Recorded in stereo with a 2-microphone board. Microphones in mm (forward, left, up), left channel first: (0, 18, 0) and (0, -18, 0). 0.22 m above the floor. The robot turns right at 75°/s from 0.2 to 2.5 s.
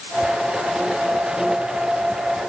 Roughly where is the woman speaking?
No woman speaking in this recording.